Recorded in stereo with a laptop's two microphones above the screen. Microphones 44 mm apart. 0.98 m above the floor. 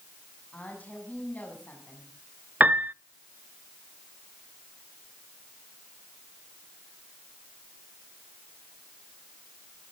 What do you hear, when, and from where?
0.5 s a woman speaking: 35° left (ahead or behind), 7 m
2.6 s a piano: 40° right (ahead or behind), 0.5 m